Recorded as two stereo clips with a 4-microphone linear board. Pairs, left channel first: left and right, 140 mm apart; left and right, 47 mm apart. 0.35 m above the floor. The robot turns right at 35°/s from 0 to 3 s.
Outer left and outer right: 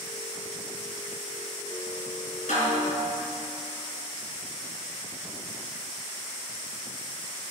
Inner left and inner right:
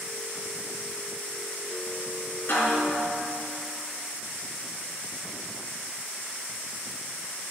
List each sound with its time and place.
2.5 s a snare drum: 65° left (ahead or behind), 4 m; by 3.0 s 50° left (ahead or behind), 4 m